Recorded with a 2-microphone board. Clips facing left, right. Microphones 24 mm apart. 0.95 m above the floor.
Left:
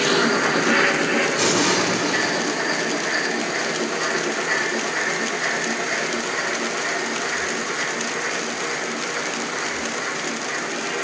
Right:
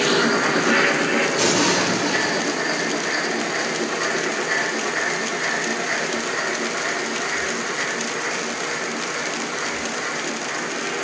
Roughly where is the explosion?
Right.